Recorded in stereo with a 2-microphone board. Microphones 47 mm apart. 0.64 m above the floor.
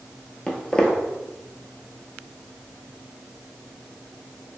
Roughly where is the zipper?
I don't hear a zipper.